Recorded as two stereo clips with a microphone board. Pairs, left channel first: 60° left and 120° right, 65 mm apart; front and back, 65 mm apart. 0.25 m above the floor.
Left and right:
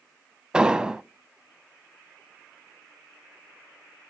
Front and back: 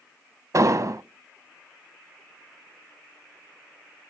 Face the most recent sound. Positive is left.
turn(degrees=165)